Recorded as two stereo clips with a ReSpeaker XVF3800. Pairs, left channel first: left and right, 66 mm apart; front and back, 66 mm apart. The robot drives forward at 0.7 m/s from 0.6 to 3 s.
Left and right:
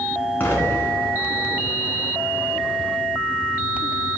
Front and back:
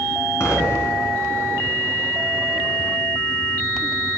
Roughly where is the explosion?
Ahead left.